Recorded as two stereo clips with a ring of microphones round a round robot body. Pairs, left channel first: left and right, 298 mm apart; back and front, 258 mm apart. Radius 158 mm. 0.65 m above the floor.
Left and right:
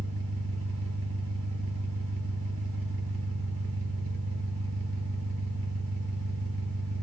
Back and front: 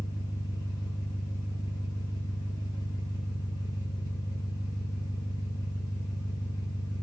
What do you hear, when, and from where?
0.0 s an engine running: 100° right, 1.4 m